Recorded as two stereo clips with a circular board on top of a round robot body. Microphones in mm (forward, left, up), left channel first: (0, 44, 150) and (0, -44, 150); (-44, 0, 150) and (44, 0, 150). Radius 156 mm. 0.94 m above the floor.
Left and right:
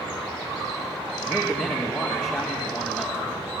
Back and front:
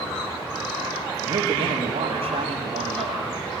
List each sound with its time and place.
1.2 s a man speaking: 20° left, 2 m